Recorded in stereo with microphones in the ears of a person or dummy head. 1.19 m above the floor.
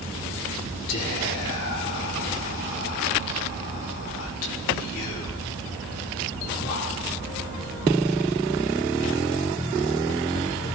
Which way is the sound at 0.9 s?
70° left (ahead or behind).